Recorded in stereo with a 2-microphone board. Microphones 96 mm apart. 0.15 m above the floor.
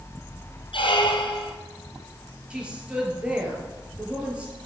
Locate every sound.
0.7 s a squeak: 60° left (ahead or behind), 1.2 m
2.5 s a woman speaking: 10° right (ahead or behind), 3.5 m